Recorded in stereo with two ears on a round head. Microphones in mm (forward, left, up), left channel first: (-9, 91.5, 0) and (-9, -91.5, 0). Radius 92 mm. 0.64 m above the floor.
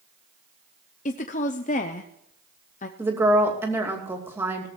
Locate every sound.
1.1 s a woman speaking: 35° left (ahead or behind), 0.8 m
3.0 s a woman speaking: 10° right (ahead or behind), 2.5 m